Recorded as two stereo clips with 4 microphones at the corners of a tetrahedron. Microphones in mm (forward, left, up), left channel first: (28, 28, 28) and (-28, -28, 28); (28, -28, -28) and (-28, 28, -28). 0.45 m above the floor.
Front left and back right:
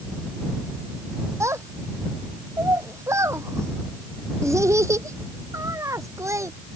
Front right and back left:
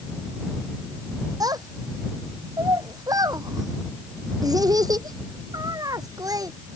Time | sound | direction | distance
1.4 | a child speaking | 175° left | ?